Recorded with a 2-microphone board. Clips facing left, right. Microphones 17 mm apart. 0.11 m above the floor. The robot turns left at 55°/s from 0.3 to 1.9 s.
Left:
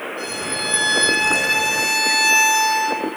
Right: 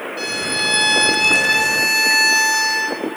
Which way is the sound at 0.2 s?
90° right.